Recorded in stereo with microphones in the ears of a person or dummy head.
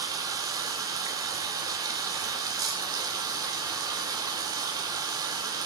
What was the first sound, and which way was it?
Running water, 15° right (ahead or behind).